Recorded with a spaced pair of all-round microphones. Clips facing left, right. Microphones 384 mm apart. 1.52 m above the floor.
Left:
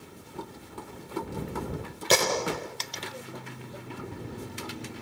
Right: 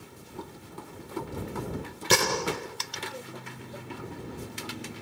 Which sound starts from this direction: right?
A gunshot, at 2.1 s.